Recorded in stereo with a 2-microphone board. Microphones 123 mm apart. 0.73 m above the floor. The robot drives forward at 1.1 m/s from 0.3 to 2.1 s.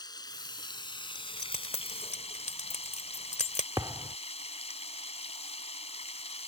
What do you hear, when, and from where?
0.0 s running water: 35° left (ahead or behind); by 6.5 s 60° left (ahead or behind)
1.1 s keys jangling: 75° left (ahead or behind); by 3.7 s 70° left (ahead or behind)
3.8 s a thud: 30° right (ahead or behind)